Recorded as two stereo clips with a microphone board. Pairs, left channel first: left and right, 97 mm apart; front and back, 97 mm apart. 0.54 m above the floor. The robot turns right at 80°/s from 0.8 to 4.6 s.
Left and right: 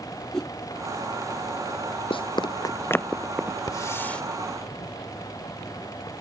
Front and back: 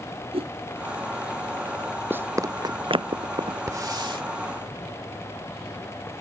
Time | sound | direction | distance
0.3 | a whoosh | 175° left | ?
2.1 | running footsteps | 110° left | ?
3.7 | a hiss | 125° left | ?